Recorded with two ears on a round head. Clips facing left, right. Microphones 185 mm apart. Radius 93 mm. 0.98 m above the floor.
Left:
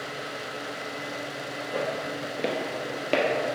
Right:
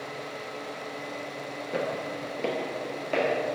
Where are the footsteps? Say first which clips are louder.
Even; 40° right (ahead or behind), 1.1 m; by 3.5 s 60° left (ahead or behind), 2 m.